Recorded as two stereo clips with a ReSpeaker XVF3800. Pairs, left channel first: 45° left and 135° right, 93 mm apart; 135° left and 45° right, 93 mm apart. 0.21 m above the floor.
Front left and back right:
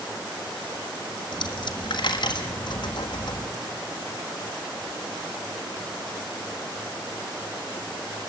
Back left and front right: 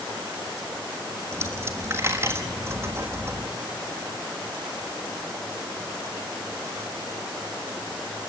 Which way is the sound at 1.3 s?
15° left.